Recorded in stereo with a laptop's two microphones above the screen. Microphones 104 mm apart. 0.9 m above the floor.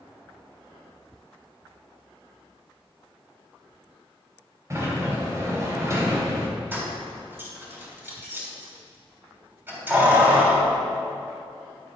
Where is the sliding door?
30° right (ahead or behind), 2.5 m.